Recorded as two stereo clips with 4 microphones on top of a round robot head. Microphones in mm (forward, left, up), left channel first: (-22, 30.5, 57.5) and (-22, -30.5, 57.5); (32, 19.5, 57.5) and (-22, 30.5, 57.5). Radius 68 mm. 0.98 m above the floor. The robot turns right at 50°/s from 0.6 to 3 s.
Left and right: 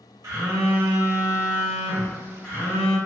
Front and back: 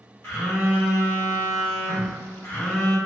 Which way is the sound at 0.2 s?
65° right.